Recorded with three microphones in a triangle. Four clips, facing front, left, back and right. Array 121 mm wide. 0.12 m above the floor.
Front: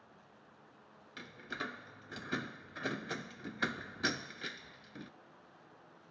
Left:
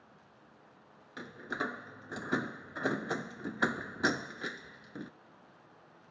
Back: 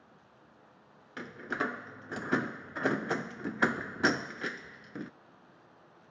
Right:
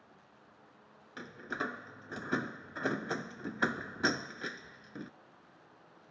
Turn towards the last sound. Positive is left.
turn(degrees=175)